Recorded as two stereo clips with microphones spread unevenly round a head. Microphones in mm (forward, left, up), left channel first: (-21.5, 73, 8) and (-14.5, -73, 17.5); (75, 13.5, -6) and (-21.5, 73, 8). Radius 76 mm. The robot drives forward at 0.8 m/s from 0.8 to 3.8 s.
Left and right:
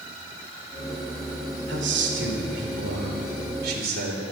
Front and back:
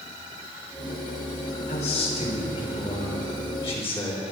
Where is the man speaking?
75° right, 3 m; by 4.2 s 105° right, 3 m.